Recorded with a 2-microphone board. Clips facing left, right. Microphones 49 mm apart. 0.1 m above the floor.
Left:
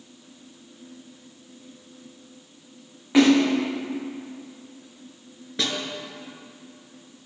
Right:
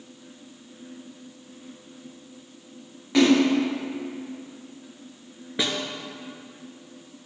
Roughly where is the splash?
Centre.